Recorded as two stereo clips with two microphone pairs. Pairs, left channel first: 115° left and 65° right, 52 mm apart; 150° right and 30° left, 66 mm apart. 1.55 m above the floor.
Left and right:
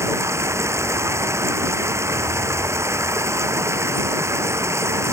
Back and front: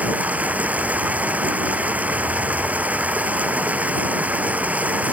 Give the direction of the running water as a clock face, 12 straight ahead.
1 o'clock.